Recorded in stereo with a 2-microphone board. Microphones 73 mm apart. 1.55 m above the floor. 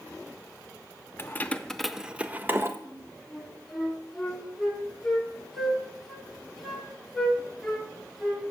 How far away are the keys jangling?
About 0.5 m.